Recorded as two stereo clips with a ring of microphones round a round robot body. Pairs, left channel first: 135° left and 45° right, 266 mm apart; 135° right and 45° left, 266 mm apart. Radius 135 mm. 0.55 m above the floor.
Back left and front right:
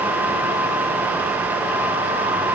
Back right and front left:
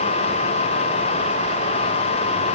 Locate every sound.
Only background noise.